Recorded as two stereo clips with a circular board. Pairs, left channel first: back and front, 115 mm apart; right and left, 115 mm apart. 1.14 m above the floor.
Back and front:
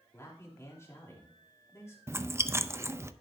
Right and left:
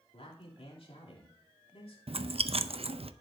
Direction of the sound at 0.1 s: 115° right.